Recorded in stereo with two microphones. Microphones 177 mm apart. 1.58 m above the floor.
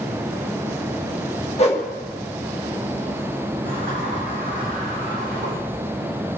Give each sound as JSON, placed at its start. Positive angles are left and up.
{"t": 1.6, "sound": "a whoosh", "side_deg": 35, "distance_m": 1.5}
{"t": 3.6, "sound": "a sliding door", "side_deg": -80, "distance_m": 4.5}